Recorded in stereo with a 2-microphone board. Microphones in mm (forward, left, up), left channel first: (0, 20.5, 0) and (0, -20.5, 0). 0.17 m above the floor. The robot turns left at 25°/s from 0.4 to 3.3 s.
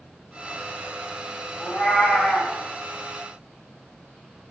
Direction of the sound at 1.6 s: 55° left (ahead or behind).